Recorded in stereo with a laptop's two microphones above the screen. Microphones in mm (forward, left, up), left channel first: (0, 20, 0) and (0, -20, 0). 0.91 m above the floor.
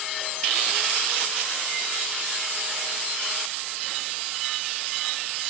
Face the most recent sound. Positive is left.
No sound to turn to.